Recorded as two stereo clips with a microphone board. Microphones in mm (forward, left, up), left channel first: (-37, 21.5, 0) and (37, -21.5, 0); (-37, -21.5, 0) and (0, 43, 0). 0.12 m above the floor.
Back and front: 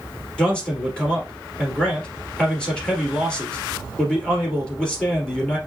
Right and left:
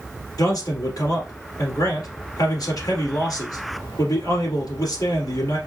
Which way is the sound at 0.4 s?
130° right.